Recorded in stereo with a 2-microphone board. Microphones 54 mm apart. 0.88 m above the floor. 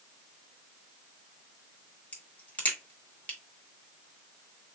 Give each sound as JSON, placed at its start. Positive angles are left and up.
{"t": 2.1, "sound": "a crack", "side_deg": 30, "distance_m": 1.1}